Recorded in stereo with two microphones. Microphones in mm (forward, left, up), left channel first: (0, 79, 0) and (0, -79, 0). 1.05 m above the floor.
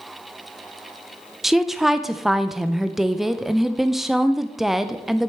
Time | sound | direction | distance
1.4 | a woman speaking | centre (ahead or behind) | 0.5 m